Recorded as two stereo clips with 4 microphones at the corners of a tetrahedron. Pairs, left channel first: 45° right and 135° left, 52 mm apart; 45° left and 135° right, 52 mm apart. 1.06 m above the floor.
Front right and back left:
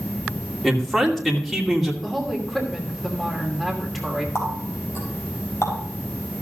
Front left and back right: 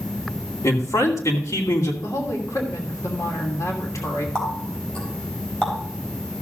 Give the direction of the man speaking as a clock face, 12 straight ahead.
11 o'clock.